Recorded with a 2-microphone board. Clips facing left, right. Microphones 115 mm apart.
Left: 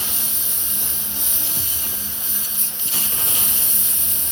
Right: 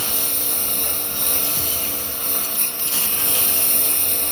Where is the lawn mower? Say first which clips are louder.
Right 5 dB; 65° right (ahead or behind).